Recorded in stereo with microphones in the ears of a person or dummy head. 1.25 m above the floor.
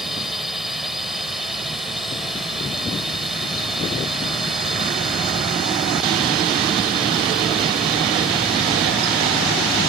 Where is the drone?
Centre (ahead or behind).